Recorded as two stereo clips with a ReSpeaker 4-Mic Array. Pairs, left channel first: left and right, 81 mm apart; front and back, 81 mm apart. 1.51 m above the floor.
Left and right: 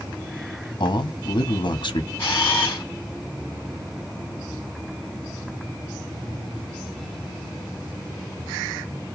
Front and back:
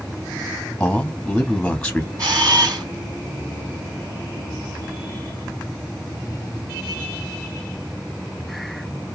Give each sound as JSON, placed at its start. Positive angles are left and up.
{"t": 0.8, "sound": "a man speaking", "azimuth_deg": 80, "distance_m": 0.7}
{"t": 2.2, "sound": "a camera shutter", "azimuth_deg": 150, "distance_m": 2.0}